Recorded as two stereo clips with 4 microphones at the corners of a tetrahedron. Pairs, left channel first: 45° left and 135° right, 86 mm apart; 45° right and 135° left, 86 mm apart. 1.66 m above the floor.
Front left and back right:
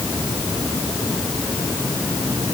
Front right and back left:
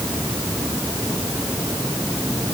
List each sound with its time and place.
Only background noise.